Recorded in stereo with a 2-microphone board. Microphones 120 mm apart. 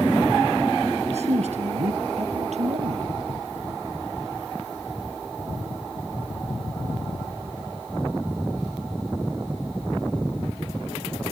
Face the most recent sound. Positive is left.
turn(degrees=-65)  # may be behind; listen again after turning